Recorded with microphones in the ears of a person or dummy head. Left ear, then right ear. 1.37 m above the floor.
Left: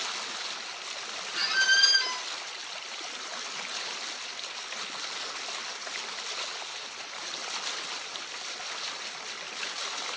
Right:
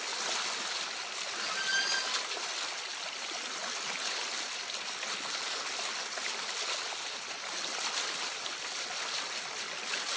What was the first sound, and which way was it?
A squeak, 60° left (ahead or behind).